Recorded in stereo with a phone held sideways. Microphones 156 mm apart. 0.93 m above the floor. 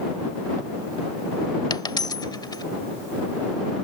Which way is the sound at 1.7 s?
25° left (ahead or behind).